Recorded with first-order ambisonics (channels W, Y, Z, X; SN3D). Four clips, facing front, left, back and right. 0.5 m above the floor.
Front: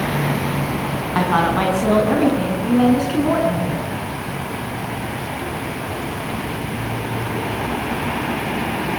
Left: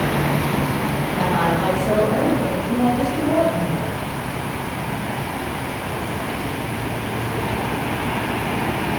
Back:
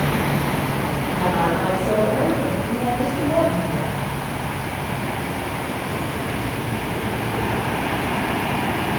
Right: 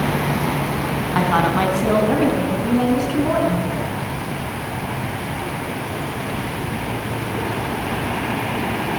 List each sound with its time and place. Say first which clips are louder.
1.1 s a woman speaking: right 3 dB, front 4 dB; 45° right, 5 m; by 3.9 s 35° right, 7 m